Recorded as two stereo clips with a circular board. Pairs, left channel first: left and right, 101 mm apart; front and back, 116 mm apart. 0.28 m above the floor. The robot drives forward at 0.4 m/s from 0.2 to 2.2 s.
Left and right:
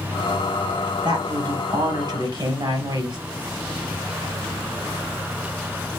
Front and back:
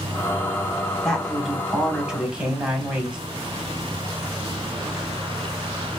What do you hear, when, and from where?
1.0 s a woman speaking: 80° right, 1.7 m; by 3.2 s 100° right, 1.7 m